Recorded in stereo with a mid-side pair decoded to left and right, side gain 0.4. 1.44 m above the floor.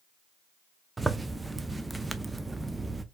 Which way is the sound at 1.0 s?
20° right.